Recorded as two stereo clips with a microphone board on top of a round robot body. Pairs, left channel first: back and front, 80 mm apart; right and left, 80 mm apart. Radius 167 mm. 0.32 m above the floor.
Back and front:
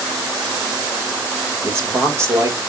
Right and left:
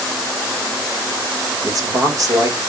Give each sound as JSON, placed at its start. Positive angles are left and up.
{"t": 1.6, "sound": "a man speaking", "azimuth_deg": 55, "distance_m": 2.5}